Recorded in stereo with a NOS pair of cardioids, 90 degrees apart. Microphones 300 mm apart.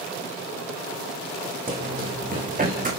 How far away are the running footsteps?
About 6 m.